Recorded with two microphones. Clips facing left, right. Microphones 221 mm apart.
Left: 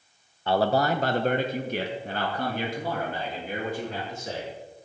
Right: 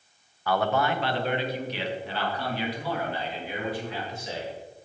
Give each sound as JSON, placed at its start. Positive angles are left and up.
{"t": 0.5, "sound": "a man speaking", "side_deg": 25, "distance_m": 0.6}